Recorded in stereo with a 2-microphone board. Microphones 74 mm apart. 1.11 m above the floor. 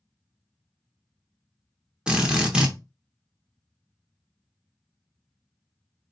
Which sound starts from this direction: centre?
A drill, at 2.1 s.